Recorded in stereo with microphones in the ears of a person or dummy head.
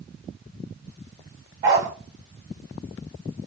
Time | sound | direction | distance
1.6 | a dog barking | 25° right (ahead or behind) | 1.7 m